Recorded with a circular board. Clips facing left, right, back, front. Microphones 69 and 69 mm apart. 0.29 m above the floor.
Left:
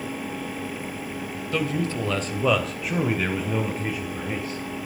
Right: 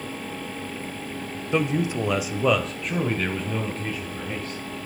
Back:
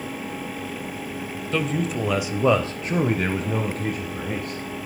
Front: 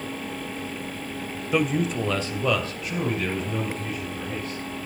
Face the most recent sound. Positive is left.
turn(degrees=160)